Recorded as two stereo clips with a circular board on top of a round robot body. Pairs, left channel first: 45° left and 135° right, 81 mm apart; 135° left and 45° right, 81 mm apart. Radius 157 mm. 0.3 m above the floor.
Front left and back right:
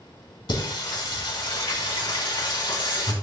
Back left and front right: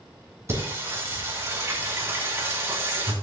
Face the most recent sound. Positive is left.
turn(degrees=15)